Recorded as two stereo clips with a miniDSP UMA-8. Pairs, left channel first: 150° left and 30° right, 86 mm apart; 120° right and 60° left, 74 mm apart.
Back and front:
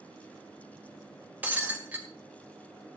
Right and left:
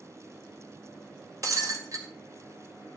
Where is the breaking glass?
35° left, 1.6 m.